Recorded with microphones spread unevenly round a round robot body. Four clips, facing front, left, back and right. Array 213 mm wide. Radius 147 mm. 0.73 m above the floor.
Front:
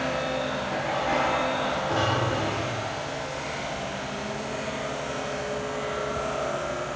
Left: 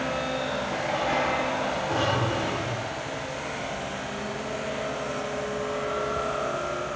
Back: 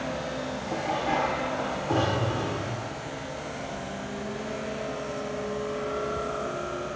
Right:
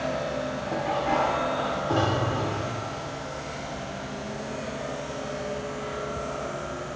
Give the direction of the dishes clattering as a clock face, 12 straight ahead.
5 o'clock.